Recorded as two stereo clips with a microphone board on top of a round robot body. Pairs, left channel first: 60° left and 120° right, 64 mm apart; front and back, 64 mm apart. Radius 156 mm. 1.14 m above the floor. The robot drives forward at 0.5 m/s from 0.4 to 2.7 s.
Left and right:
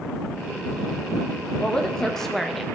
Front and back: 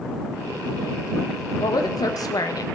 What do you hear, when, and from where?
1.6 s a woman speaking: 20° right, 1.4 m; by 2.6 s 30° right, 0.9 m